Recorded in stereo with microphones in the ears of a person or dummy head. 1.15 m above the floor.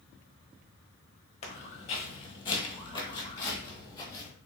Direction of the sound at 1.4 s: 30° left (ahead or behind).